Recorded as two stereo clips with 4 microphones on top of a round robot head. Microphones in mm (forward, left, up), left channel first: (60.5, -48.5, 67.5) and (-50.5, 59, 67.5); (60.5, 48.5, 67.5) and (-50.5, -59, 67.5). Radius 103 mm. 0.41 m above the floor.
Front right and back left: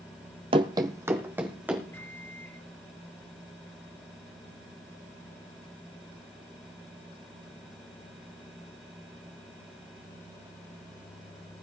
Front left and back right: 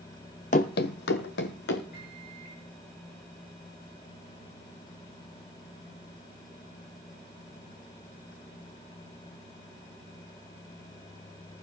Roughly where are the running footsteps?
Left.